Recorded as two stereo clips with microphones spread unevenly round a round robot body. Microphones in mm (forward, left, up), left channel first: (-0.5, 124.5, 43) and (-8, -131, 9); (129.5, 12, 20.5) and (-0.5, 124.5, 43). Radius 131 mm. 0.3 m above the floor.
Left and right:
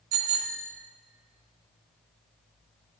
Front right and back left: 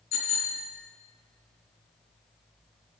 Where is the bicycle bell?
80° right, 2.5 m.